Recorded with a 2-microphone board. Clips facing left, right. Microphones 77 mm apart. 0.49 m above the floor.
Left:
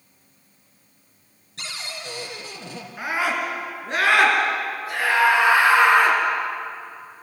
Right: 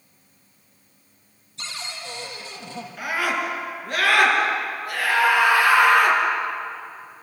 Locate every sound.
1.6 s a cupboard door: 90° left, 3 m
3.0 s a scream: 20° left (ahead or behind), 6 m